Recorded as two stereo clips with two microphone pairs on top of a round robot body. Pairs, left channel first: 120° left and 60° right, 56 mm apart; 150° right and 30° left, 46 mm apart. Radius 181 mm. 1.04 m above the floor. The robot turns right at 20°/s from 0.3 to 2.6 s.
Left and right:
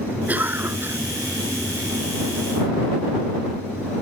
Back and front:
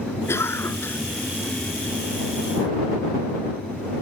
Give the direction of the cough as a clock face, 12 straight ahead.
4 o'clock.